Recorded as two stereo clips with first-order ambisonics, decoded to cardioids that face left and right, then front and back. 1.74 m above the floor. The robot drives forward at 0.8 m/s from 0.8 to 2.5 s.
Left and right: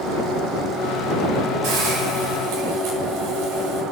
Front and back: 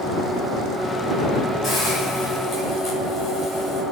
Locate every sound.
1.6 s a hiss: 65° right, 7.5 m; by 3.8 s 70° right, 7 m